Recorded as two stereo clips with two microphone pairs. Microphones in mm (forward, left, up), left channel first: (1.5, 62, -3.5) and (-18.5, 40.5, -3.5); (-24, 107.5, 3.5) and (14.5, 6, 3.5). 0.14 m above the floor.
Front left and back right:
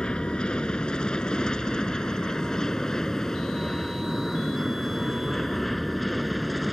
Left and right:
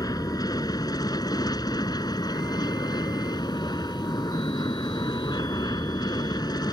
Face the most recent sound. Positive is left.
turn(degrees=135)